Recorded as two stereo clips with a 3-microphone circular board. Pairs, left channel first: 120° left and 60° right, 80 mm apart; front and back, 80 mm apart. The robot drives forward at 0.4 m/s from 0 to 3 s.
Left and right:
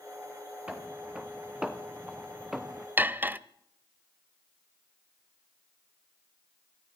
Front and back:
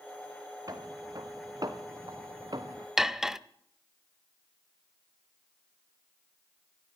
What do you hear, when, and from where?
0.7 s footsteps: 135° right, 3 m; by 2.9 s 150° right, 1.6 m
3.0 s cutlery clinking: 100° right, 0.7 m